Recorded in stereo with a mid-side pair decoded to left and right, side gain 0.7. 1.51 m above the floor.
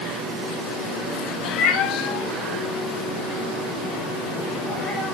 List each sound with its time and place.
1.4 s a cat meowing: 70° left, 2.5 m; by 5.2 s straight ahead, 3.5 m